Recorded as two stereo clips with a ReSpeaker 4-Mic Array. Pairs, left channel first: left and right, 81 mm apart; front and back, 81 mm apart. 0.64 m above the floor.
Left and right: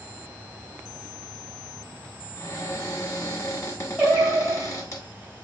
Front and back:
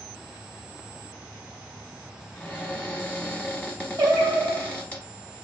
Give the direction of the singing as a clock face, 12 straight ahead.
5 o'clock.